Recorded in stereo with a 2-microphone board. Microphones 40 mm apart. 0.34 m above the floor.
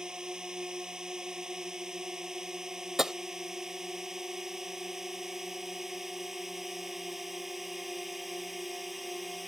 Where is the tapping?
10° right (ahead or behind).